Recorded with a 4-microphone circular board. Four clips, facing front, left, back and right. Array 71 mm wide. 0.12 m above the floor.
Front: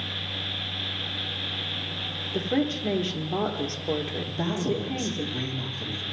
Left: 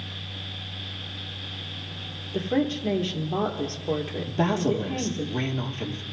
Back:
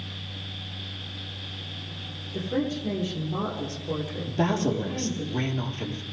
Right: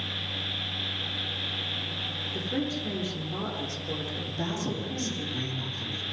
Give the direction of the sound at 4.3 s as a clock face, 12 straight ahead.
8 o'clock.